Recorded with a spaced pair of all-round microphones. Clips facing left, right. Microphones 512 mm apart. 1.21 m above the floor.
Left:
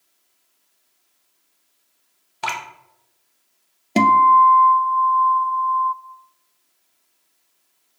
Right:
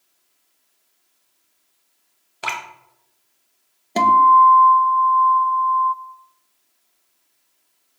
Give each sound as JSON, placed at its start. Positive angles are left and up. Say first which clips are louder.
{"t": 2.4, "sound": "dripping", "louder": "left 1 dB", "side_deg": 15, "distance_m": 1.4}
{"t": 4.0, "sound": "a guitar", "louder": "left 2 dB", "side_deg": 50, "distance_m": 0.6}